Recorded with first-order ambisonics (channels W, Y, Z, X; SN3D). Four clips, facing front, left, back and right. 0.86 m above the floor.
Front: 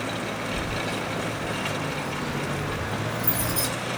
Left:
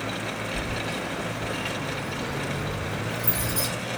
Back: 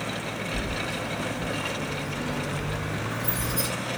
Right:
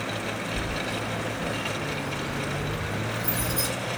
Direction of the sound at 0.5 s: 5° right.